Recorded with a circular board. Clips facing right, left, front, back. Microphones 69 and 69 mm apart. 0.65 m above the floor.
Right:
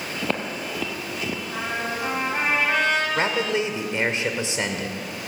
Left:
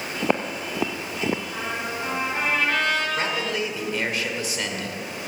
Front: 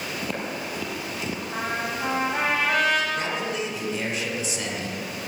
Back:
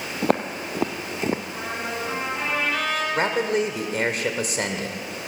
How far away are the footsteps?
About 1.4 m.